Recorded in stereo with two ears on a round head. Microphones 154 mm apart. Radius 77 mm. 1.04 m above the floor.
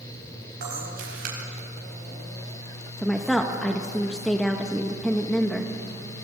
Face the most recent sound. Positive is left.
turn(degrees=5)  # may be behind; listen again after turning